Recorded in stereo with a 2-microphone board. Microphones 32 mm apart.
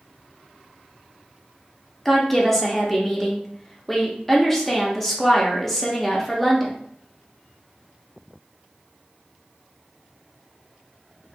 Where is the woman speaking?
10° left (ahead or behind), 0.7 m.